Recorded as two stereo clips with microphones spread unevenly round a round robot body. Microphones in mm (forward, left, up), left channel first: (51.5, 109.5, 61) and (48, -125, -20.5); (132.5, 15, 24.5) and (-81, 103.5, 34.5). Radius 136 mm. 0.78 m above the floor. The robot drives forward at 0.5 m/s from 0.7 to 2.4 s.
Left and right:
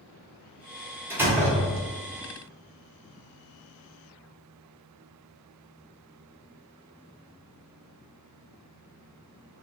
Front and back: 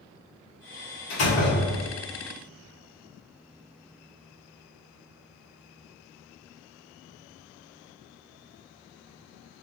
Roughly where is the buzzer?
No buzzer in this recording.